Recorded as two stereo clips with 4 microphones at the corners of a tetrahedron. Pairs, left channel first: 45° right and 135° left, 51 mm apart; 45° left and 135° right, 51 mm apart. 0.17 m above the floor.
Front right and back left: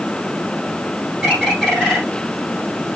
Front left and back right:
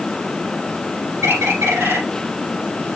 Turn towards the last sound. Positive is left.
turn(degrees=-135)